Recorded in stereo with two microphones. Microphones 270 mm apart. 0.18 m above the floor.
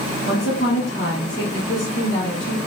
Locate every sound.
0.3 s a woman speaking: 45° left (ahead or behind), 1.9 m